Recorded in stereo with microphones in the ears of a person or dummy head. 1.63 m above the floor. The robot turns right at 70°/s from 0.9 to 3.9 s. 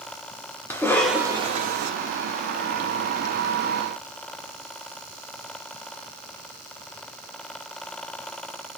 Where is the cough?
170° left, 0.7 m; by 1.9 s 120° right, 0.7 m.